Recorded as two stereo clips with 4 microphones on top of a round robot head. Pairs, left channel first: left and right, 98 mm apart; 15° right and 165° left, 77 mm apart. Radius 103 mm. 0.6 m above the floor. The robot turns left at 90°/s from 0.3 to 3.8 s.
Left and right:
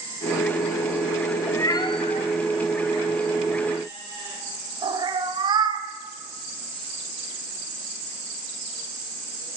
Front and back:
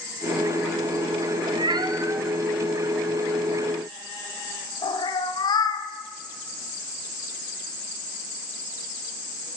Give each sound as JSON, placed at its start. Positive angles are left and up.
{"t": 1.5, "sound": "a cat meowing", "azimuth_deg": 165, "distance_m": 0.7}